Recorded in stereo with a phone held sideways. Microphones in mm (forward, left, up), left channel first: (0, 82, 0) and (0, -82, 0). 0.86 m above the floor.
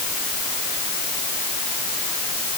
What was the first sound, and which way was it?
Only background noise.